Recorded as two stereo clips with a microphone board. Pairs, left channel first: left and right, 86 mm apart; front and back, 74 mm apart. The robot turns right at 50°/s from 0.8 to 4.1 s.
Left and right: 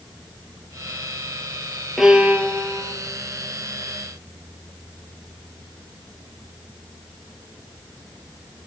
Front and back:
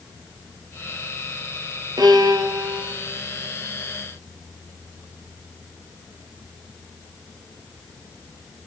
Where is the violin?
175° right, 0.7 m; by 2.9 s 125° right, 0.7 m.